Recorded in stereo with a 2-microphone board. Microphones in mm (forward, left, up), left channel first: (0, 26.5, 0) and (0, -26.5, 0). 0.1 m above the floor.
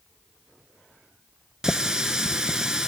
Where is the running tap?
10° right (ahead or behind), 0.8 m.